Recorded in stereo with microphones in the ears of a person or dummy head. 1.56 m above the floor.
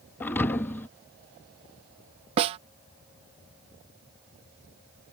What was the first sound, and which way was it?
A thud, 10° left (ahead or behind).